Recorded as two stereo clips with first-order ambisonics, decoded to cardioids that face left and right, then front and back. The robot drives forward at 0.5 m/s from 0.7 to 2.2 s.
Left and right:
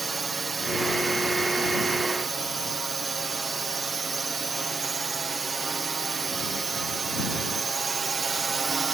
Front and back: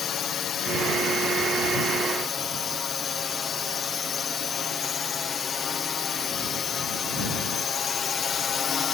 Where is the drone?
25° right; by 8.9 s 35° right.